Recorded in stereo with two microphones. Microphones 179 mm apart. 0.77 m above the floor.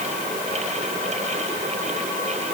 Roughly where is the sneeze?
No sneeze in this recording.